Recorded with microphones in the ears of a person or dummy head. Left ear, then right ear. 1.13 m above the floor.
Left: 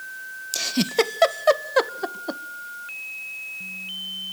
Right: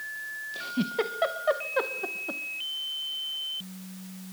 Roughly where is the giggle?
Left.